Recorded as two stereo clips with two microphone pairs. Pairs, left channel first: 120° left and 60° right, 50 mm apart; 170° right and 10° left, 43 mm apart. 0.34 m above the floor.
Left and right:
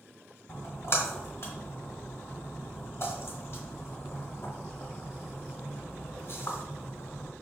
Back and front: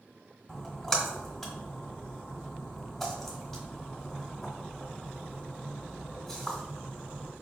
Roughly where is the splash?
Left.